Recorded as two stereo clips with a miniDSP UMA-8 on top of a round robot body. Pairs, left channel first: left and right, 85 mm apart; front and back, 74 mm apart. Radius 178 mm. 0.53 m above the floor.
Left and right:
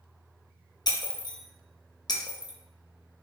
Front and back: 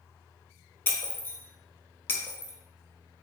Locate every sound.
0.9 s breaking glass: 60° left, 0.6 m